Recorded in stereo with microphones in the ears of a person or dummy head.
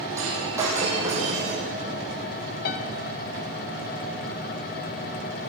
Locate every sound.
0.2 s breaking glass: 15° right (ahead or behind), 8 m
2.6 s a piano: 55° left (ahead or behind), 1.8 m